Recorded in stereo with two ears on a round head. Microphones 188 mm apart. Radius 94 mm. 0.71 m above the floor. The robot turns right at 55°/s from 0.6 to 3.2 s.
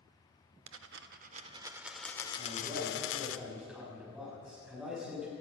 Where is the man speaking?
50° right, 6.5 m; by 5.3 s straight ahead, 6.5 m.